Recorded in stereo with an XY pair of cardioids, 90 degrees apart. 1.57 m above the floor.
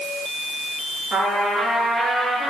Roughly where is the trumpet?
Ahead right.